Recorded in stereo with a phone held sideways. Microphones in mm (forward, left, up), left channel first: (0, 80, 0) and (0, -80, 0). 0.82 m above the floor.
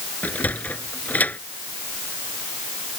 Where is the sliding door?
10° left (ahead or behind).